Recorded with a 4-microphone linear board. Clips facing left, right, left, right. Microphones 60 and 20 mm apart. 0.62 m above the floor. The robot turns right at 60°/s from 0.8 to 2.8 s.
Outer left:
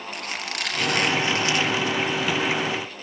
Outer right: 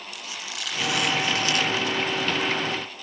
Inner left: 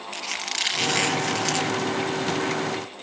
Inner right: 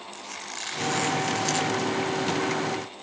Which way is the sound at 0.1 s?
105° left.